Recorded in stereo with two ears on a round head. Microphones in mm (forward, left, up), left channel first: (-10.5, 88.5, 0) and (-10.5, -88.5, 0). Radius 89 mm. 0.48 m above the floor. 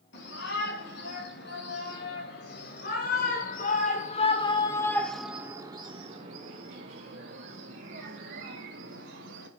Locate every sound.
0.1 s a shout: 60° left (ahead or behind), 5 m; by 9.5 s 65° right (ahead or behind), 4 m